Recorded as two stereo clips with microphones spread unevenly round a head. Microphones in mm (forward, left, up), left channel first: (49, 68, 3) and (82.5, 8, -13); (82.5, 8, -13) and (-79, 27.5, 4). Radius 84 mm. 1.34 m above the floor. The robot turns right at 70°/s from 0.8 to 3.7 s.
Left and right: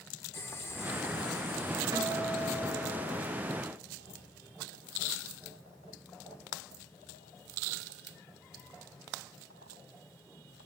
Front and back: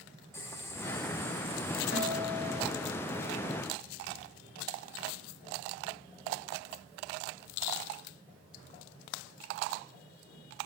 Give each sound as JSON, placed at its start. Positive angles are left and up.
{"t": 0.3, "sound": "boiling", "azimuth_deg": 70, "distance_m": 2.5}
{"t": 1.9, "sound": "a guitar", "azimuth_deg": -40, "distance_m": 5.0}